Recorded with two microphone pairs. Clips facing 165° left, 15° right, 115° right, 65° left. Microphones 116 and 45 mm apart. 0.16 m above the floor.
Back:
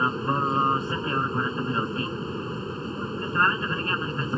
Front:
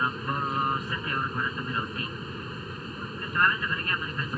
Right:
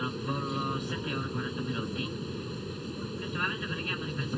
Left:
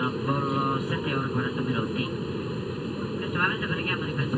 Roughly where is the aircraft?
Behind left.